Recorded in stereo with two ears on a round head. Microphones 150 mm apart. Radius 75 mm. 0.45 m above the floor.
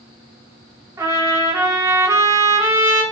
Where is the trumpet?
15° right (ahead or behind), 0.6 m.